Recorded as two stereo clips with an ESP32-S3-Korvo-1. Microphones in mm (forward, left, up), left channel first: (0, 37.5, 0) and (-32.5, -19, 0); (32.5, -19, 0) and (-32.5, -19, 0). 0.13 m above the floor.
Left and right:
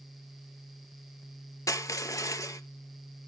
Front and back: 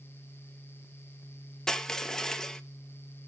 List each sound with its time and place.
1.7 s crushing: 80° left, 0.6 m